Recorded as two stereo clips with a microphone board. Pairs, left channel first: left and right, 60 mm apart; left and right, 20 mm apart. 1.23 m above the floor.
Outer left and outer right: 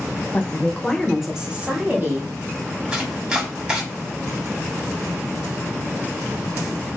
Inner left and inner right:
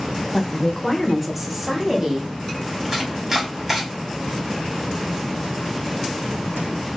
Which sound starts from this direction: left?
A woman speaking, at 0.3 s.